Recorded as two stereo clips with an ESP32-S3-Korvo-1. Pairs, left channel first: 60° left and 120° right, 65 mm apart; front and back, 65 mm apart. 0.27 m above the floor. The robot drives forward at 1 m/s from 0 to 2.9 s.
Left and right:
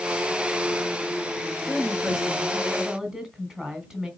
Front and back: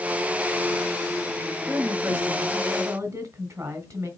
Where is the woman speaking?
140° left, 1.5 m; by 4.1 s 160° left, 2.5 m.